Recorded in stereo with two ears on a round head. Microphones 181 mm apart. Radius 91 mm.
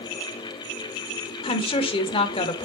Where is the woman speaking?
25° left (ahead or behind), 1.0 m.